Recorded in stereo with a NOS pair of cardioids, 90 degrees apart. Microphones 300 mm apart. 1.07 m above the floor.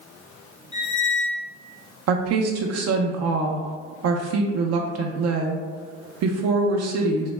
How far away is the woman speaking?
About 0.5 m.